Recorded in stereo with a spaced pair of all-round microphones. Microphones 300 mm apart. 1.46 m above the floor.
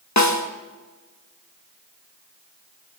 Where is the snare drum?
75° left (ahead or behind), 1.6 m.